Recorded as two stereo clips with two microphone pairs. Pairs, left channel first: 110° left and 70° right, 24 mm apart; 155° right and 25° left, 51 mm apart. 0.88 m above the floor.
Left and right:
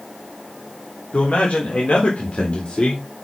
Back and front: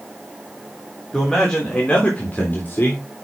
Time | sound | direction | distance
1.1 | a man speaking | 125° left | 3.5 m